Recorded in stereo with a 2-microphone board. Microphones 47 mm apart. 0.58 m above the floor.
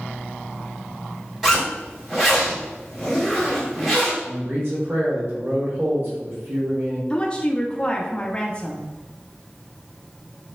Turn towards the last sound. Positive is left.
turn(degrees=20)  # may be behind; listen again after turning